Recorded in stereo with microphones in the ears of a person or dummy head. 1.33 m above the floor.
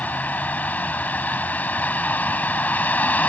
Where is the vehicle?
10° left (ahead or behind).